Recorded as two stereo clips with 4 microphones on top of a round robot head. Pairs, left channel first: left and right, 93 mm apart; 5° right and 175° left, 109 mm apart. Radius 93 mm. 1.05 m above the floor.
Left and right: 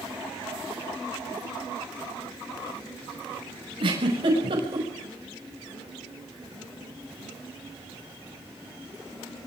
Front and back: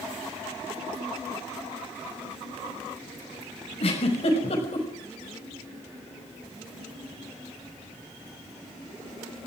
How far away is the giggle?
About 5.5 m.